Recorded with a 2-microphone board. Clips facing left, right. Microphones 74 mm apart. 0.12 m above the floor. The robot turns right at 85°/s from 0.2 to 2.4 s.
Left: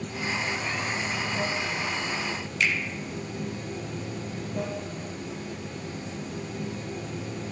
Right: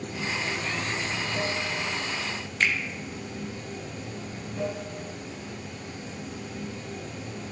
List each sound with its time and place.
0.0 s running water: 140° right, 2.5 m; by 7.5 s 50° left, 2.5 m
2.6 s a finger snap: 40° right (ahead or behind), 1.3 m